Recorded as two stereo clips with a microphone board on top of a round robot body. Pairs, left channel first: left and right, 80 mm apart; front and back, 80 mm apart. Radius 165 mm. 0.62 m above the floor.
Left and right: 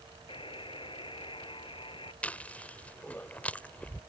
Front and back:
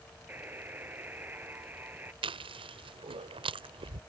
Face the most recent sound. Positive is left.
turn(degrees=165)